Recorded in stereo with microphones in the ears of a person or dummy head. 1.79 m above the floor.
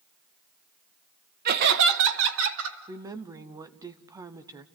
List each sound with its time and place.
1.4 s laughter: 45° right (ahead or behind), 0.9 m; by 2.8 s 75° right (ahead or behind), 2.5 m
2.9 s a woman speaking: 15° right (ahead or behind), 0.6 m